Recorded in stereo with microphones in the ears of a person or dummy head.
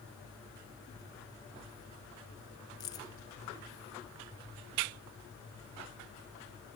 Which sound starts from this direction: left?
Keys jangling, at 2.8 s.